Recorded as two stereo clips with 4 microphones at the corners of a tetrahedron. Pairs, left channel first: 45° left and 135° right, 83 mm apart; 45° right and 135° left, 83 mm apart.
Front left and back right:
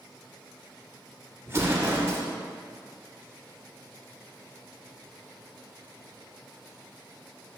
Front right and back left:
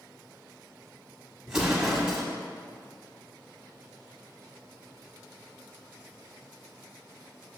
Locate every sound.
1.5 s an explosion: 155° right, 1.4 m